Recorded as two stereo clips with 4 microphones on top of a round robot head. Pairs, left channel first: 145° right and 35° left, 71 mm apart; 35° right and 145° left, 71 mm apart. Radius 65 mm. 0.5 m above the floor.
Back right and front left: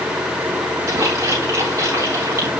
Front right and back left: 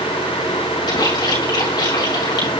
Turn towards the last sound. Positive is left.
turn(degrees=-15)